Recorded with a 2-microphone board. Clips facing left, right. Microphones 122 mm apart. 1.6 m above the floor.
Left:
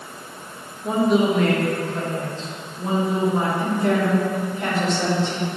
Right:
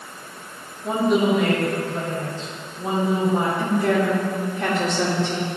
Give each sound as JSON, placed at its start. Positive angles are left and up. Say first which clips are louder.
{"t": 0.8, "sound": "a woman speaking", "louder": "left 1 dB", "side_deg": 0, "distance_m": 2.5}
{"t": 3.6, "sound": "a woman speaking", "louder": "even", "side_deg": -80, "distance_m": 3.0}